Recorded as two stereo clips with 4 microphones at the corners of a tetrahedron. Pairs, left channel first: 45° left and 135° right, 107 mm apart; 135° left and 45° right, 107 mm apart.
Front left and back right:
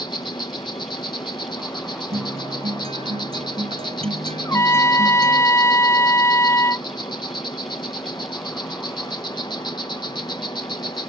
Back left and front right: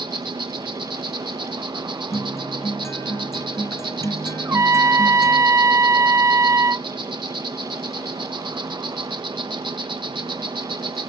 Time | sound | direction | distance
0.0 | an insect | straight ahead | ?
2.1 | a guitar | 160° right | ?
4.5 | a trumpet | straight ahead | ?